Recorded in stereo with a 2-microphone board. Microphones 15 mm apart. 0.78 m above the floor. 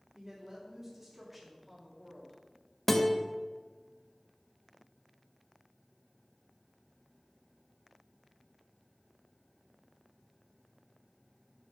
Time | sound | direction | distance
0.1 | a woman speaking | 40° right (ahead or behind) | 1.9 m
2.9 | a guitar | 20° left (ahead or behind) | 0.8 m